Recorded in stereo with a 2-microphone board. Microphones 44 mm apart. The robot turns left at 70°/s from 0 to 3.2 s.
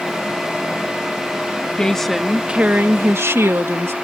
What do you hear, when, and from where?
1.8 s a woman speaking: 25° left; by 3.9 s 75° right